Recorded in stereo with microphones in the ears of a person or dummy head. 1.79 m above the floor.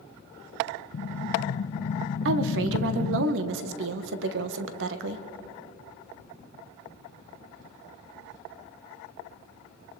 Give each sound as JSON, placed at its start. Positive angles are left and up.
{"t": 0.9, "sound": "an explosion", "side_deg": 45, "distance_m": 0.6}
{"t": 2.2, "sound": "a woman speaking", "side_deg": -75, "distance_m": 1.5}